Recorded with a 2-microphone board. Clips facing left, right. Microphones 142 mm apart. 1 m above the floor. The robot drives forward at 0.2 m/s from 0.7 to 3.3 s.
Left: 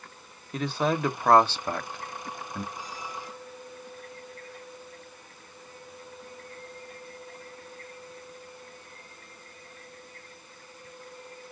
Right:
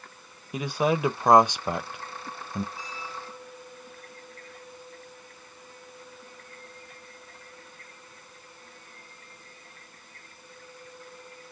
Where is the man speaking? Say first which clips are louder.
Right 2 dB; 10° right (ahead or behind), 0.9 m; by 2.6 s 15° right (ahead or behind), 0.5 m.